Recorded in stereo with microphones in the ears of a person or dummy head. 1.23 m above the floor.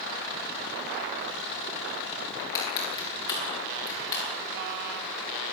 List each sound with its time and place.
2.4 s crushing: 20° left (ahead or behind), 9.5 m